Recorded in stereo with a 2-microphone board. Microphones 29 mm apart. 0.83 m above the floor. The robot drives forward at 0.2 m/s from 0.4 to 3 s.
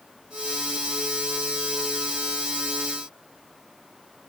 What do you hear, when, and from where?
Only background noise.